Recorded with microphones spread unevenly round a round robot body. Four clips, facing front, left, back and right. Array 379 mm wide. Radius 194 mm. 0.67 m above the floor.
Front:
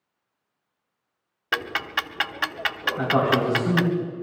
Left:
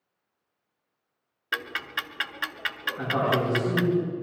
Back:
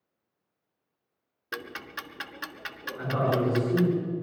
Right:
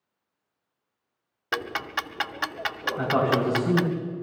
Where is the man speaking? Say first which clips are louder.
Right 2 dB, front 5 dB; 45° right, 8.5 m.